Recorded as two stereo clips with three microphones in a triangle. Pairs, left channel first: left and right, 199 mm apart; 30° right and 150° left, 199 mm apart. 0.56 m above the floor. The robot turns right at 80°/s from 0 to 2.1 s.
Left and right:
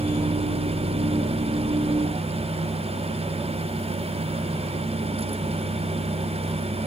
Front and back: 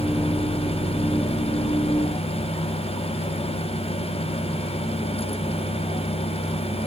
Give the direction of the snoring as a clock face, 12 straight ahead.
No snoring in this recording.